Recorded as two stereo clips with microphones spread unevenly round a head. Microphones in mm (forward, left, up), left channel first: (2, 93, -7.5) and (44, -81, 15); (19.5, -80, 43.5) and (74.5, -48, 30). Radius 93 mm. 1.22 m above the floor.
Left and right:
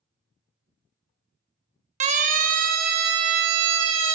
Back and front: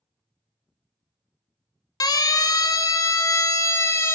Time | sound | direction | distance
2.0 | a siren | 135° right | 2 m